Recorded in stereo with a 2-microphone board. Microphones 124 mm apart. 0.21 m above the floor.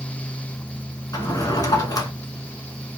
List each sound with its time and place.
1.1 s a drawer: 30° left (ahead or behind), 1.4 m